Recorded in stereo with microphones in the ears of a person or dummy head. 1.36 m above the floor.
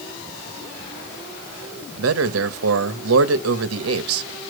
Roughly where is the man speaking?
Right.